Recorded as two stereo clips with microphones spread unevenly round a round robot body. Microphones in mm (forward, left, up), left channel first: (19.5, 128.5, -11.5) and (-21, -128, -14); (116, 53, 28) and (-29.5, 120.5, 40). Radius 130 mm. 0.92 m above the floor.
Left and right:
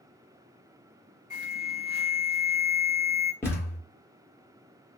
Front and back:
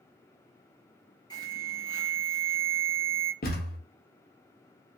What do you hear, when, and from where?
1.3 s an alarm: 20° left, 1.7 m
3.4 s a thud: straight ahead, 0.9 m